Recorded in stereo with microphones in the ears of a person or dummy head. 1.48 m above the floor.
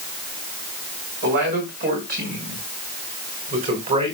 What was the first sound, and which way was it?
A man speaking, 50° right (ahead or behind).